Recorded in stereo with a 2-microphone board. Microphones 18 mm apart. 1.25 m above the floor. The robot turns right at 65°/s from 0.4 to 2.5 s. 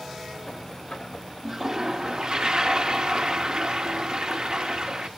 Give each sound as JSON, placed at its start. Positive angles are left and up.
{"t": 1.4, "sound": "a toilet flushing", "azimuth_deg": -160, "distance_m": 1.0}